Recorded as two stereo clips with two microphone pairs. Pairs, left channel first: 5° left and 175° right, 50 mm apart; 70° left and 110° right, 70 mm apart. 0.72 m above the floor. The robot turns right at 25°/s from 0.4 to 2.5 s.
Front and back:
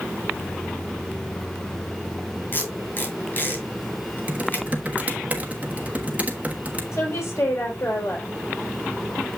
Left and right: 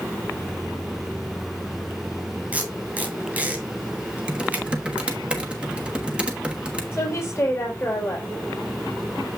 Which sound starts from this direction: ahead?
A woman speaking, at 6.9 s.